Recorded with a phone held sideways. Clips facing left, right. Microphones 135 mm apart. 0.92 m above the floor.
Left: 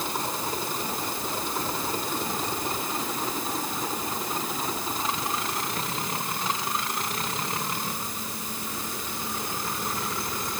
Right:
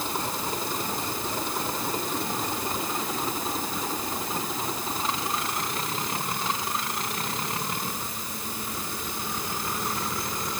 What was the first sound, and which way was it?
Only background noise.